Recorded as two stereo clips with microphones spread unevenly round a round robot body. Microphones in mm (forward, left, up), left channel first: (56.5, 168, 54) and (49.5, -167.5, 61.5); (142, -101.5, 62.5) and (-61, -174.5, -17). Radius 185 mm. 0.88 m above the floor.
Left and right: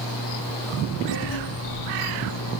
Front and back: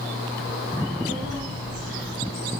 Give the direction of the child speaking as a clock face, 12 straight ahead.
10 o'clock.